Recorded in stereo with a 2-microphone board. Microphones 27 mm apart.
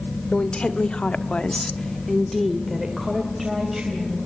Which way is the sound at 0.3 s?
40° left (ahead or behind).